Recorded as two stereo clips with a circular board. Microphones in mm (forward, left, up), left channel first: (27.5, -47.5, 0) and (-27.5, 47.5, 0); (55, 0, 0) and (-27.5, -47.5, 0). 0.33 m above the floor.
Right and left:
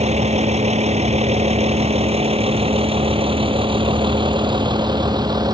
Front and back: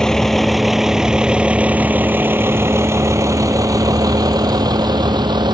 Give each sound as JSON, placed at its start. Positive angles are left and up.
{"t": 0.0, "sound": "a vehicle", "azimuth_deg": 115}